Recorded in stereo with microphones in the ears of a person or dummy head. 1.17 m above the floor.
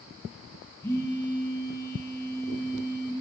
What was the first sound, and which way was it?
A phone buzzing, 15° left (ahead or behind).